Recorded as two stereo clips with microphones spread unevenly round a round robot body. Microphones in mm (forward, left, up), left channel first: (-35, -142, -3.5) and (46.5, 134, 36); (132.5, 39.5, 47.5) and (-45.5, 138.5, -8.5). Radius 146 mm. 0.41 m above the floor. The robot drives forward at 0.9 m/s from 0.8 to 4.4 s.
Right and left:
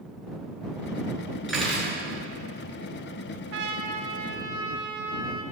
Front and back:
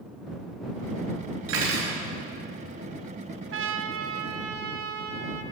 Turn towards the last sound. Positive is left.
turn(degrees=155)